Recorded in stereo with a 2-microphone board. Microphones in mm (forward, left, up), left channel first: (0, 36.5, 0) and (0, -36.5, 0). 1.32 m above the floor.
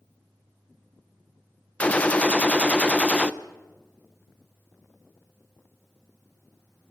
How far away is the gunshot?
About 0.6 m.